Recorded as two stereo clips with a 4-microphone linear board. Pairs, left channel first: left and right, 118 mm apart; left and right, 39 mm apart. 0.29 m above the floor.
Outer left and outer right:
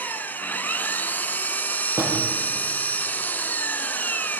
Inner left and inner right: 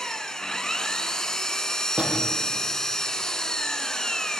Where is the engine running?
15° left (ahead or behind), 1.7 m.